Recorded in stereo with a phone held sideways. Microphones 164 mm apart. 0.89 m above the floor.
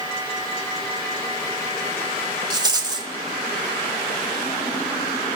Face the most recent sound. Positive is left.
turn(degrees=-25)  # may be behind; listen again after turning